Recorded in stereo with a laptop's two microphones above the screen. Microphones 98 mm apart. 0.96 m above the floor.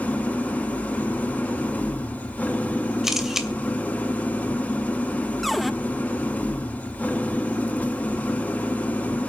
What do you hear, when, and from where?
0.0 s an engine running: 15° left (ahead or behind), 1.4 m
3.0 s a camera shutter: 5° right (ahead or behind), 2.5 m
5.4 s a cupboard door: centre (ahead or behind), 0.7 m